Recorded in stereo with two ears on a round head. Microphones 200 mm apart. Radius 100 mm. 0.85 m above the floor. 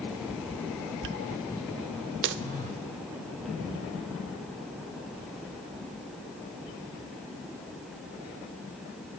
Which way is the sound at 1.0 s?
55° right (ahead or behind).